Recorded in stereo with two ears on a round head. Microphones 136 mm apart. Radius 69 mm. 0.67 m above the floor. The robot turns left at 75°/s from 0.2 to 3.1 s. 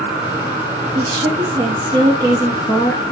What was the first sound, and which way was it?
A woman speaking, 40° right.